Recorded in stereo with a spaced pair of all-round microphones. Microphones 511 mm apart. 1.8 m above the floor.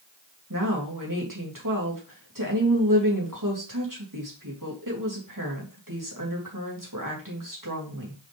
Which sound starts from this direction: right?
A woman speaking, at 0.5 s.